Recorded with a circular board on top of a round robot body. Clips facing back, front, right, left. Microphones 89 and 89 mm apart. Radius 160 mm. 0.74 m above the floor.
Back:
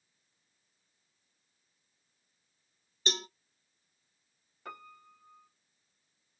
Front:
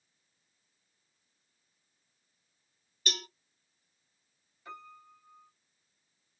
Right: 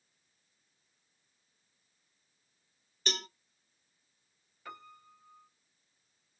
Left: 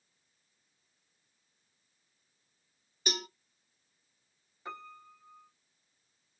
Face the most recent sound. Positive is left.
turn(degrees=155)